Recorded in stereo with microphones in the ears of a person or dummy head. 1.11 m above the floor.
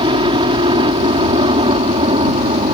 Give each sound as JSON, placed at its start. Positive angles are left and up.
{"t": 0.0, "sound": "a helicopter", "side_deg": -30}